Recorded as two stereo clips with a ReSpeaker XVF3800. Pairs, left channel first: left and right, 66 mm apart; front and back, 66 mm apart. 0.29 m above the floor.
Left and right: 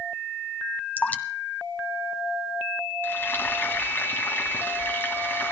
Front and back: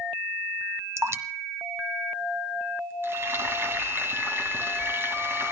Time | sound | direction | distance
1.0 | dripping | 150° left | 1.4 m
3.0 | frying | 140° left | 2.5 m